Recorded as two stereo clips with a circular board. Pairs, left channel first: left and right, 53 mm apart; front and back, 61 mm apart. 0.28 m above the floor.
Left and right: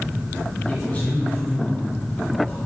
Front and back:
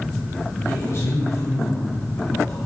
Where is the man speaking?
30° left, 1.7 m.